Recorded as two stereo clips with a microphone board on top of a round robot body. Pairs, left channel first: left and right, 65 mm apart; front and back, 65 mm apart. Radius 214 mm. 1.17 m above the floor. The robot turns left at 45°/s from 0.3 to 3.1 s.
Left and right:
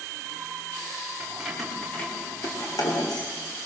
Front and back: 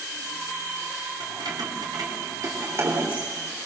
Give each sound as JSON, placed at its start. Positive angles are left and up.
{"t": 1.2, "sound": "keys jangling", "azimuth_deg": -165, "distance_m": 4.0}